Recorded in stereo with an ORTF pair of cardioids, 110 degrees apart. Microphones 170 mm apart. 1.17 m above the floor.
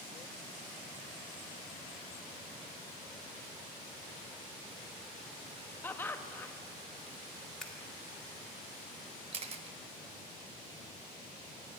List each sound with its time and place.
5.8 s laughter: 10° left, 1.3 m
7.6 s scissors: 5° left, 2.5 m
9.3 s a camera shutter: 40° right, 1.1 m